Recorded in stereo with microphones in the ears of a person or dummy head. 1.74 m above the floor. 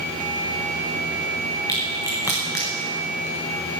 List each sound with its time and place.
1.7 s a crack: 15° left (ahead or behind), 1.1 m